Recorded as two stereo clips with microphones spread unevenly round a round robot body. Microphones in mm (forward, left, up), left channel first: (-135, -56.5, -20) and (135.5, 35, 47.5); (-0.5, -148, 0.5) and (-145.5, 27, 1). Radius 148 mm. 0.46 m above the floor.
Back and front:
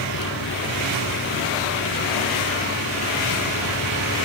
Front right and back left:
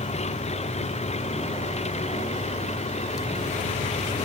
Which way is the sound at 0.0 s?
110° right.